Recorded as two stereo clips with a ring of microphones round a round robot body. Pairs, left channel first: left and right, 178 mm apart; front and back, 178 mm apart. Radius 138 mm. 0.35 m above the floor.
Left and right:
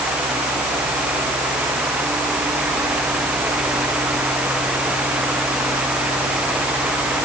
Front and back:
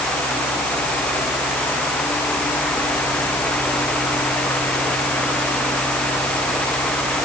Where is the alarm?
No alarm in this recording.